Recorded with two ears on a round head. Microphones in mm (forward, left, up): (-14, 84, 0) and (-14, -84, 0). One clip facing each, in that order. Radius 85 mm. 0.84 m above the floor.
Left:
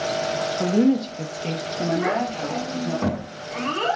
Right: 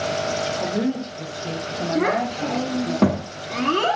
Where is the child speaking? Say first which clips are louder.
Right 6 dB; 65° right (ahead or behind), 0.7 m.